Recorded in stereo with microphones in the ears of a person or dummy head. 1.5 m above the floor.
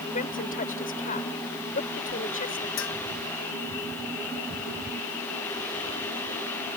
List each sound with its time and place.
0.1 s a woman speaking: 45° left (ahead or behind)
2.8 s a bell: 70° left (ahead or behind)